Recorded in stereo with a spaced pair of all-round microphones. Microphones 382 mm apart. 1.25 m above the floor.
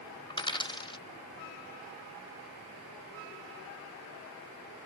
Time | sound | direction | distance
0.3 | a dropped coin | 10° left (ahead or behind) | ?